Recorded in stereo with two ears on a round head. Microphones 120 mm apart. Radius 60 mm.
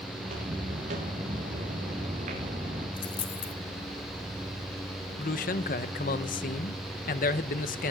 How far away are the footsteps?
About 7 m.